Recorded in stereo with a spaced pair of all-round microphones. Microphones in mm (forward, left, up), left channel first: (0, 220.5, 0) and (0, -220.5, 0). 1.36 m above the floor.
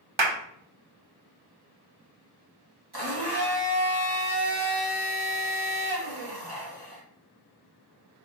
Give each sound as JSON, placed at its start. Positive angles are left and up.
{"t": 0.2, "sound": "a clap", "side_deg": -75, "distance_m": 0.9}
{"t": 2.9, "sound": "a blender", "side_deg": -60, "distance_m": 2.0}